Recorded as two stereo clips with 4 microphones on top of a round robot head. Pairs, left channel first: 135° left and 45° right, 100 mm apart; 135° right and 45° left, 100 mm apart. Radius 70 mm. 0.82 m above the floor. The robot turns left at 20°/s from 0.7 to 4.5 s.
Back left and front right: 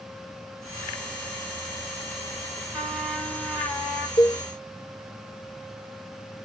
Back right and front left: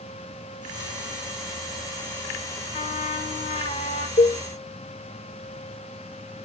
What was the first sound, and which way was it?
A trumpet, 125° right.